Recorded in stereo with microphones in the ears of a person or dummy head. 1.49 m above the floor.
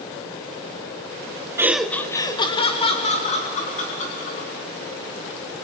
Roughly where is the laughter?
Centre.